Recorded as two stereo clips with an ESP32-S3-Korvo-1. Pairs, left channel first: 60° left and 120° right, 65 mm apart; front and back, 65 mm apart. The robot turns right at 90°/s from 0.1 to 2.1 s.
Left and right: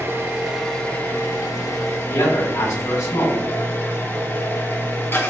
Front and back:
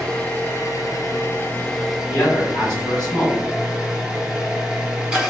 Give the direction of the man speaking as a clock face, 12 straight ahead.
10 o'clock.